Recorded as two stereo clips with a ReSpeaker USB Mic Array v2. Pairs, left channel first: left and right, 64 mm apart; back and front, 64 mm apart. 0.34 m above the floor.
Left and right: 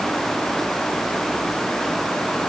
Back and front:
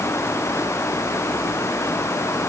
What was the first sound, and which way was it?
Only background noise.